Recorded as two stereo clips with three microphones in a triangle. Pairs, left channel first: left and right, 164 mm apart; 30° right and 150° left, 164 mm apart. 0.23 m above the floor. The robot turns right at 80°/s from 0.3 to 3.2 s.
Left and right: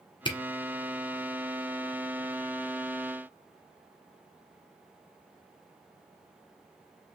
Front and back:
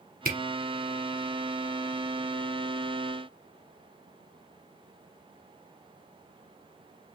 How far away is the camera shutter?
About 1.3 m.